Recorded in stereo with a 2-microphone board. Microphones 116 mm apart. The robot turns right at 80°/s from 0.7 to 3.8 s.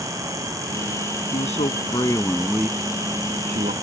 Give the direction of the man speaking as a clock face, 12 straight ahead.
9 o'clock.